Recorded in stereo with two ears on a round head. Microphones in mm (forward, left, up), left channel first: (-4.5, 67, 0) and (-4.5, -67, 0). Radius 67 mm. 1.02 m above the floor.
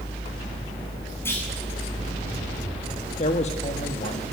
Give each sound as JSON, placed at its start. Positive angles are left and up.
{"t": 1.2, "sound": "a clunk", "side_deg": 15, "distance_m": 8.5}
{"t": 3.2, "sound": "a man speaking", "side_deg": 45, "distance_m": 1.2}